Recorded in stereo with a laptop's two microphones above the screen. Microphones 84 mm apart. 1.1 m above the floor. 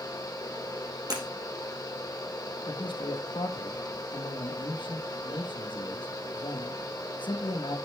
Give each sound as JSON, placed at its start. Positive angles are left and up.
{"t": 0.0, "sound": "a fan", "side_deg": 45, "distance_m": 1.7}
{"t": 1.1, "sound": "breaking glass", "side_deg": -50, "distance_m": 4.5}
{"t": 2.7, "sound": "a man speaking", "side_deg": 70, "distance_m": 1.2}